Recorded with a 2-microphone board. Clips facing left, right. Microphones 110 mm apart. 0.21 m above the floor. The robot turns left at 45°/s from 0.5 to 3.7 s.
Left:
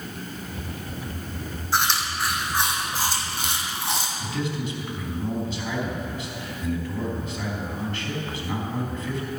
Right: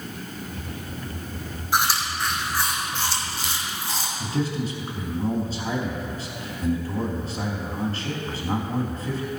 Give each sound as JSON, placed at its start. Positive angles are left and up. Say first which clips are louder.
{"t": 1.7, "sound": "chewing", "louder": "right 1 dB", "side_deg": -15, "distance_m": 1.9}
{"t": 4.2, "sound": "a man speaking", "louder": "right 7 dB", "side_deg": -35, "distance_m": 1.8}